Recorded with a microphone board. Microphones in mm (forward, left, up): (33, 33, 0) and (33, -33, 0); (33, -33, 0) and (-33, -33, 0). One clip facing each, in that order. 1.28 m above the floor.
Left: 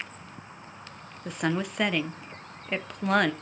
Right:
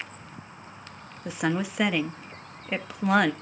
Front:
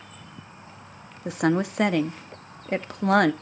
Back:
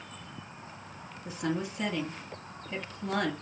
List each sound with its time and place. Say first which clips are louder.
1.2 s a woman speaking: right 1 dB, front 10 dB; 5° right, 1.0 m